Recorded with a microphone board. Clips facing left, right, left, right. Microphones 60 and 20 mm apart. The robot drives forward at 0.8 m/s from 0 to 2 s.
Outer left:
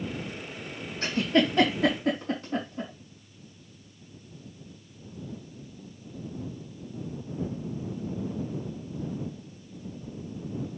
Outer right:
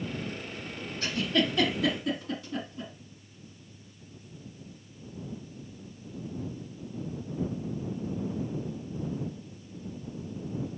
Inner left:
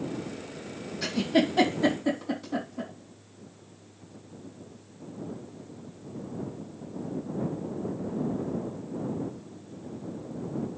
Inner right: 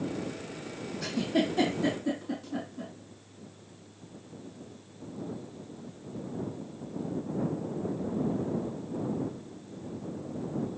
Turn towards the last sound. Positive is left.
turn(degrees=45)  # may be behind; listen again after turning